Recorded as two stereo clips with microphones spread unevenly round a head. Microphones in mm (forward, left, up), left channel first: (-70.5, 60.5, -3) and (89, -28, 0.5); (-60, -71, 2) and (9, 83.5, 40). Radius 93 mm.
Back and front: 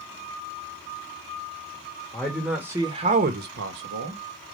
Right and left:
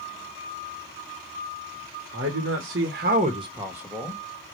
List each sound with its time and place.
2.1 s a man speaking: 70° left, 1.2 m; by 4.2 s 30° right, 1.4 m